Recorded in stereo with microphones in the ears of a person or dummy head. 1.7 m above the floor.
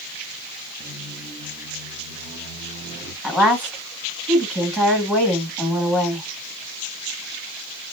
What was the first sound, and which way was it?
A squeak, 45° right (ahead or behind).